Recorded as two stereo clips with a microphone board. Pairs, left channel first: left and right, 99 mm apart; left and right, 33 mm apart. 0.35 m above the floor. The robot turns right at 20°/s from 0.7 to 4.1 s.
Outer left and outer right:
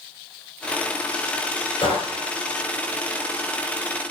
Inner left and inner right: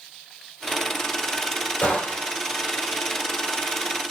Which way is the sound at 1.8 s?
55° left (ahead or behind).